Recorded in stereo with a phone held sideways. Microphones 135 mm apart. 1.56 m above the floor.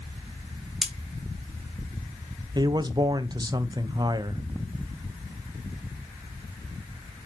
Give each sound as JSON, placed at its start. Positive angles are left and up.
{"t": 0.8, "sound": "cutlery clinking", "side_deg": 0, "distance_m": 0.7}
{"t": 2.5, "sound": "a man speaking", "side_deg": -30, "distance_m": 0.6}